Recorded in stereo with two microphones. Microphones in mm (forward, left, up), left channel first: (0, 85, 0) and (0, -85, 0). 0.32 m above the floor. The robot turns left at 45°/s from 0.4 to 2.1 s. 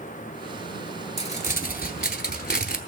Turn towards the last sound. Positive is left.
turn(degrees=100)